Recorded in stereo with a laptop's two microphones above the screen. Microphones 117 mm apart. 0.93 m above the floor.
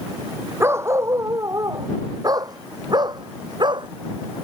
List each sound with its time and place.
0.6 s a dog barking: 20° right (ahead or behind); by 3.9 s 40° right (ahead or behind)